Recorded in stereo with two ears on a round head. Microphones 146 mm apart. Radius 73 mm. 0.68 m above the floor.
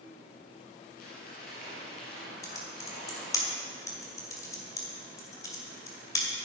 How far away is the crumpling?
About 5 m.